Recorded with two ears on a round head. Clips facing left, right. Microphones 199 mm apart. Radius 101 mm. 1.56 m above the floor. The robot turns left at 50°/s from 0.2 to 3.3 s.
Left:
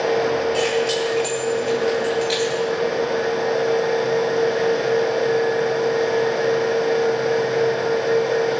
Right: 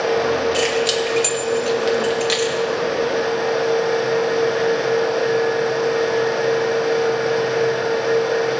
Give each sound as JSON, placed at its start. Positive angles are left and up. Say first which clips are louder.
{"t": 0.5, "sound": "keys jangling", "louder": "right 1 dB", "side_deg": -25, "distance_m": 2.5}